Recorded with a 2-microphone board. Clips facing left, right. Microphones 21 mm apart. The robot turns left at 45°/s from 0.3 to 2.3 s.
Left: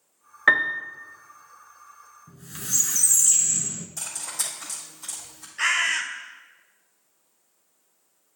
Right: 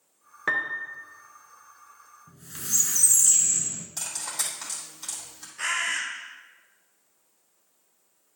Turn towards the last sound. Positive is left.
turn(degrees=30)  # may be behind; listen again after turning